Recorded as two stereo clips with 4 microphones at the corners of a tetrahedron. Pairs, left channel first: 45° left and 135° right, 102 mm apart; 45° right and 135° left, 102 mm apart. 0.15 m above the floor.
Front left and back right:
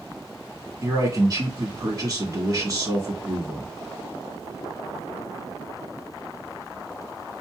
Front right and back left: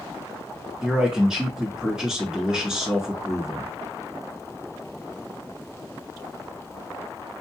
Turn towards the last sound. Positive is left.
turn(degrees=-145)